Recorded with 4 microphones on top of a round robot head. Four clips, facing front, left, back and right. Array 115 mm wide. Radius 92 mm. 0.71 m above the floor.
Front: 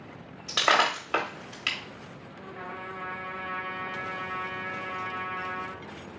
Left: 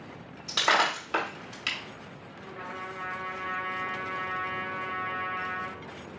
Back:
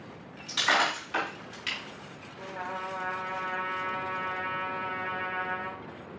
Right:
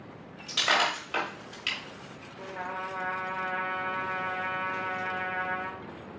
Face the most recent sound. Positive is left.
turn(degrees=-125)